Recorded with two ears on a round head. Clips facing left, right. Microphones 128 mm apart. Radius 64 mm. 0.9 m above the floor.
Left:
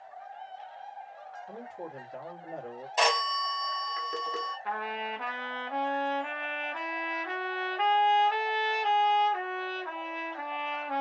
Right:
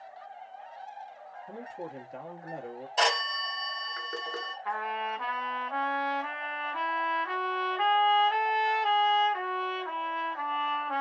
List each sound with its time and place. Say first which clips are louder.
1.5 s a man speaking: right 3 dB; 25° right (ahead or behind), 1.2 m
3.0 s a phone ringing: left 2 dB; 10° left (ahead or behind), 1.5 m
4.7 s a trumpet: right 5 dB; 25° left (ahead or behind), 1.1 m